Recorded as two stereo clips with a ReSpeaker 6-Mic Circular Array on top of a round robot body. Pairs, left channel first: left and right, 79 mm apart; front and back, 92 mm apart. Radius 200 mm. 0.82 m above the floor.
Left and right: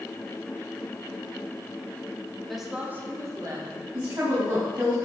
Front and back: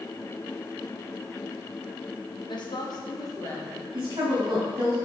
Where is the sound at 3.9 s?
135° right, 2 m.